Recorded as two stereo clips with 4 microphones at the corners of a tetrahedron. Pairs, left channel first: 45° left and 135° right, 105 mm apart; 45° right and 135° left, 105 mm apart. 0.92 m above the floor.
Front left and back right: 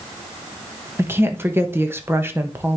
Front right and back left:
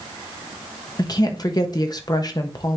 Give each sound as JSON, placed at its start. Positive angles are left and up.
{"t": 1.0, "sound": "a woman speaking", "azimuth_deg": -75, "distance_m": 1.0}